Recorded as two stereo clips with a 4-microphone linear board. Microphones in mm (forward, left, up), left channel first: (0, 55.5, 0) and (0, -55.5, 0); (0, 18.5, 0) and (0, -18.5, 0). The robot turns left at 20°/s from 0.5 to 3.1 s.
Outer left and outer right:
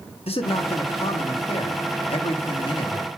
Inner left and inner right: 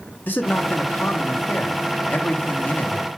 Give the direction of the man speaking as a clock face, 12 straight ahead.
8 o'clock.